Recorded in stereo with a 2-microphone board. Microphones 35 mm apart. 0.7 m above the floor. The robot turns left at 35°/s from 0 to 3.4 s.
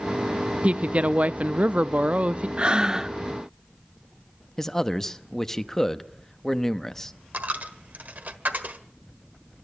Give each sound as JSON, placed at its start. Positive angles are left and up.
{"t": 0.6, "sound": "a woman speaking", "azimuth_deg": -65, "distance_m": 0.6}
{"t": 2.6, "sound": "breathing", "side_deg": -30, "distance_m": 0.6}
{"t": 4.6, "sound": "a man speaking", "side_deg": 10, "distance_m": 0.8}
{"t": 7.3, "sound": "a dropped coin", "side_deg": -50, "distance_m": 1.4}